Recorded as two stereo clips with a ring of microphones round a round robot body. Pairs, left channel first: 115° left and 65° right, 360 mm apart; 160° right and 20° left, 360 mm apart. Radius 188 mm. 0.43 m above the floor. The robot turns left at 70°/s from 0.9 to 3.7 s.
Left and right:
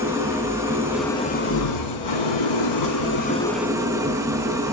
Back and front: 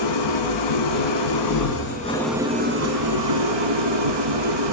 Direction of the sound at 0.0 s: 150° right.